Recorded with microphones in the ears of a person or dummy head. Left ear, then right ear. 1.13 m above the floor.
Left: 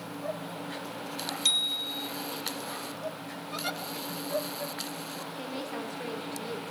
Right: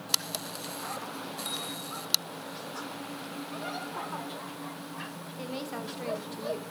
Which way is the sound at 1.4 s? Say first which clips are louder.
Left 12 dB; 75° left (ahead or behind).